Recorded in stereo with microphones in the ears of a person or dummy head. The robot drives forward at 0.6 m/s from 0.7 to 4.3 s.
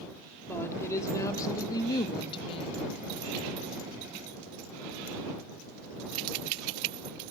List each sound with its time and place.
0.5 s a woman speaking: 15° left (ahead or behind), 2 m; by 2.8 s 35° left (ahead or behind), 0.9 m